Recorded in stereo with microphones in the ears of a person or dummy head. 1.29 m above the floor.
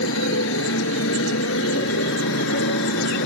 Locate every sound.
0.0 s a motorcycle: 75° left (ahead or behind); by 3.3 s 70° left (ahead or behind)